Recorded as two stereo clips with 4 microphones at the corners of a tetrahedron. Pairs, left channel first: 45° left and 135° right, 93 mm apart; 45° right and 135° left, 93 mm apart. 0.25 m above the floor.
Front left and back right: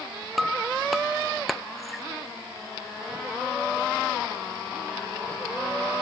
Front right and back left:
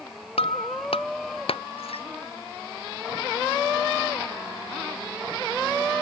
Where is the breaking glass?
45° right.